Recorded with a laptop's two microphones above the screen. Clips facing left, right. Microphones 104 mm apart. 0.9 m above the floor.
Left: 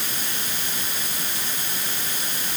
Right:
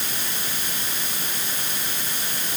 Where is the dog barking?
No dog barking in this recording.